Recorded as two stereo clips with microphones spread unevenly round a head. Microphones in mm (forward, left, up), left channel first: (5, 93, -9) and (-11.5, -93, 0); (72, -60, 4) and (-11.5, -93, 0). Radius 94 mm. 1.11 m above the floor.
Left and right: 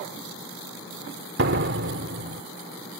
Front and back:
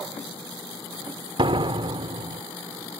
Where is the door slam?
130° right.